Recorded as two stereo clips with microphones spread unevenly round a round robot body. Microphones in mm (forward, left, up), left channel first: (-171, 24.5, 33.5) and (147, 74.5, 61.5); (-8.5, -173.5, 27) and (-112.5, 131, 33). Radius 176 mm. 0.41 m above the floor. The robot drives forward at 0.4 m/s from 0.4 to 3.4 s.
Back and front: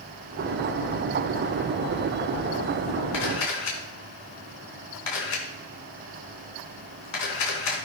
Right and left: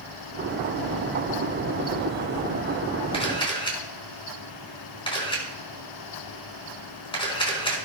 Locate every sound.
3.1 s a camera shutter: 145° right, 4 m